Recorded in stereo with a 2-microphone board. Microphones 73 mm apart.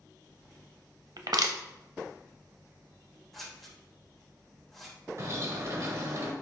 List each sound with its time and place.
1.2 s crushing: 65° right (ahead or behind), 0.7 m
3.3 s scissors: 5° left (ahead or behind), 2.5 m
5.2 s a bird: 45° right (ahead or behind), 1.4 m